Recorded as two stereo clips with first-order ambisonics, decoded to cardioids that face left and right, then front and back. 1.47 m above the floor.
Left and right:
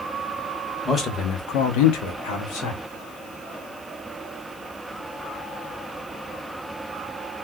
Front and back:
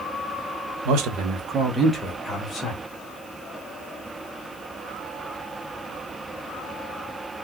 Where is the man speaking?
165° left, 0.9 m; by 2.8 s 70° left, 1.5 m.